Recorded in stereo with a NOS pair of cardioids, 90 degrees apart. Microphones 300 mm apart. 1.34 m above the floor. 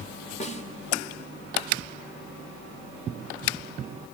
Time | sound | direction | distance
0.4 | a snare drum | 25° left | 3 m